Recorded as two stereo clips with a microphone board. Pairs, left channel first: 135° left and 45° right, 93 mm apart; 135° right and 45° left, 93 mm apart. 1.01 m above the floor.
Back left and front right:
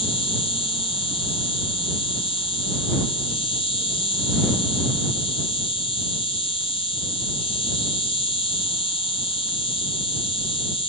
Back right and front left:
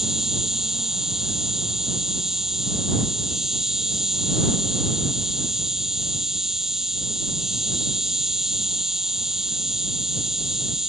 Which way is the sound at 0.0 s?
130° left.